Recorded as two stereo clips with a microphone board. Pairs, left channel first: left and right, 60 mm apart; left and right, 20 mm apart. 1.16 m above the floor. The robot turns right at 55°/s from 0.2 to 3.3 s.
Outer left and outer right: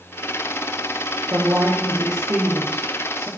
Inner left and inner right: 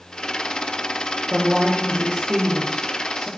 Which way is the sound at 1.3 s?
160° right.